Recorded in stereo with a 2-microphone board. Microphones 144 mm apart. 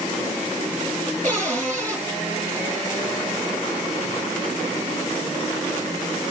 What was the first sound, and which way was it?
A cupboard door, 55° right (ahead or behind).